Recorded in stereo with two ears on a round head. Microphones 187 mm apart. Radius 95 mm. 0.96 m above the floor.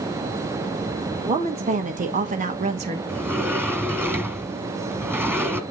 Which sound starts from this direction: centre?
A sliding door, at 3.1 s.